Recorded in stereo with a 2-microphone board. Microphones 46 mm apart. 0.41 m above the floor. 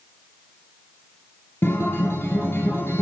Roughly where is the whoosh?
No whoosh in this recording.